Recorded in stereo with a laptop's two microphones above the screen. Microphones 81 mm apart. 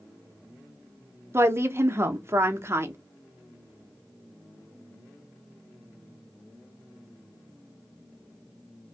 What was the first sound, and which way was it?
A woman speaking, 35° right (ahead or behind).